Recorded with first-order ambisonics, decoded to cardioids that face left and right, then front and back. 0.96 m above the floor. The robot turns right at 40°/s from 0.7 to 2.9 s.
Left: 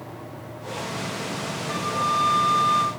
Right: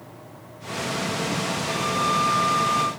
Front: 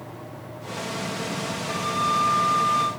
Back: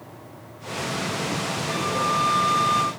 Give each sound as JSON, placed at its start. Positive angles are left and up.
{"t": 1.7, "sound": "a flute", "azimuth_deg": -100, "distance_m": 1.3}